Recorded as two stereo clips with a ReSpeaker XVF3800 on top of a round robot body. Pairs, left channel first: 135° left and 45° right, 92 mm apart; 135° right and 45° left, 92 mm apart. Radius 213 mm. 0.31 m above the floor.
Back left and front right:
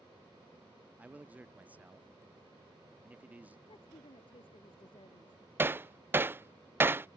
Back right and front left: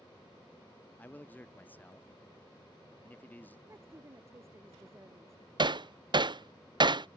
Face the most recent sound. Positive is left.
turn(degrees=20)